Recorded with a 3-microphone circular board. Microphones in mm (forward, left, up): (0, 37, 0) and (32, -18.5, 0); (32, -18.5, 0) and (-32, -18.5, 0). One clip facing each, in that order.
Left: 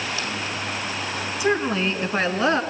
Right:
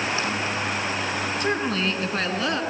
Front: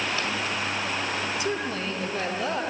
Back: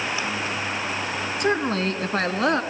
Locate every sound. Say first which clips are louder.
1.4 s a woman speaking: left 5 dB, back 6 dB; 160° right, 1.8 m; by 2.6 s straight behind, 2.5 m